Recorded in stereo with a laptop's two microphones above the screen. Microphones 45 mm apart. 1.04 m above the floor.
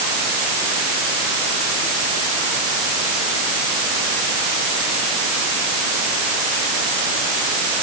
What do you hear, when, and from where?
Only background noise.